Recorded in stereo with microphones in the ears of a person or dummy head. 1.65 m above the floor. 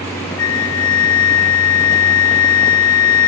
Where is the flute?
75° left (ahead or behind), 7.5 m.